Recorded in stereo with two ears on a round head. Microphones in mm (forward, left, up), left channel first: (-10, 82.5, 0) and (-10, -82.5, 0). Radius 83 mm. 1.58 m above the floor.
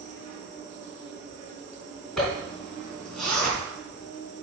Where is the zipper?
Centre (ahead or behind), 3.5 m.